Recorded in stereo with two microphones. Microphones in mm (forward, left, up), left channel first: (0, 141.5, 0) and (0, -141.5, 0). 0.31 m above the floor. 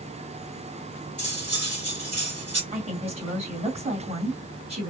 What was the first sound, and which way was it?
Cutlery clinking, 60° right (ahead or behind).